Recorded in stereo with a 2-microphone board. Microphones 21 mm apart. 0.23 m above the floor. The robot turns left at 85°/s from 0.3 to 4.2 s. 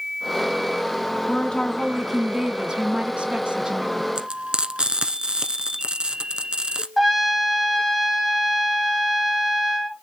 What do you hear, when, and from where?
1.3 s a woman speaking: 70° left, 1.5 m; by 4.0 s 165° right, 1.5 m
4.2 s frying: 40° right (ahead or behind), 1.4 m; by 6.9 s 45° right (ahead or behind), 1.4 m
7.0 s a trumpet: centre (ahead or behind), 3 m